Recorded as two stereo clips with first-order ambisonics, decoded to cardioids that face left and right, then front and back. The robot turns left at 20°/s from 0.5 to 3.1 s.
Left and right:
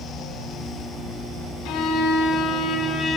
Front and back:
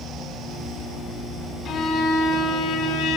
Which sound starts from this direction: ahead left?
A violin, at 1.6 s.